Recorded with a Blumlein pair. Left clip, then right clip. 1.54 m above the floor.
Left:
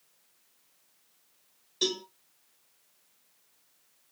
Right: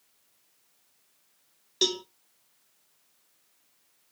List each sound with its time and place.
1.8 s a cowbell: 30° right, 1.3 m